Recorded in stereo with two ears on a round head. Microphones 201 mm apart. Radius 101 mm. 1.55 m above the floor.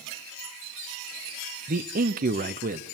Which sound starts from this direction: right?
A man speaking, at 1.7 s.